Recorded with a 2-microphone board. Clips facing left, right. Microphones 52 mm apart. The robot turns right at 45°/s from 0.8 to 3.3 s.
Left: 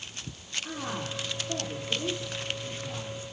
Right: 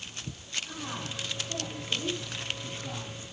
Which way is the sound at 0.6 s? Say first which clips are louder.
Left 6 dB; 105° left.